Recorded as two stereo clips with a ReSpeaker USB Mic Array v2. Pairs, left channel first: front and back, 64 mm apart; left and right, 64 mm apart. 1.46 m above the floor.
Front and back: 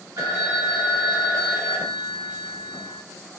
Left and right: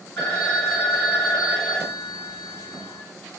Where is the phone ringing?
160° left, 2.5 m.